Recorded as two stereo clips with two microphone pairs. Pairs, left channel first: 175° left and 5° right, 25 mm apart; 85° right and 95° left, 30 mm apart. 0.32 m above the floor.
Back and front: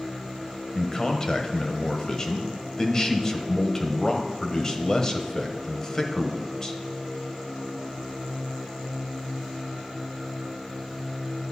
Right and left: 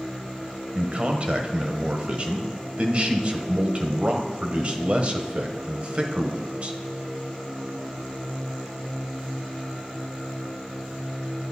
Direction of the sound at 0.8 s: 120° left.